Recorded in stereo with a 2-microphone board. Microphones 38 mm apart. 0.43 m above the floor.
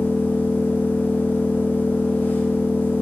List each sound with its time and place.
0.0 s an engine running: 80° left, 6.5 m